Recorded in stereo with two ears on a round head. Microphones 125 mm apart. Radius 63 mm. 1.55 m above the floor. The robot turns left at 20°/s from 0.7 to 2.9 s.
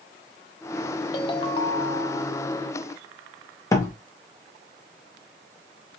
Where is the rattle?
No rattle in this recording.